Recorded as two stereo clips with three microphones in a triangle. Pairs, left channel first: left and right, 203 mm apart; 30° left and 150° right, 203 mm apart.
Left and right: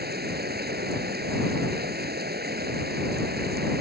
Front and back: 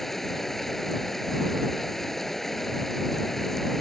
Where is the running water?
60° right.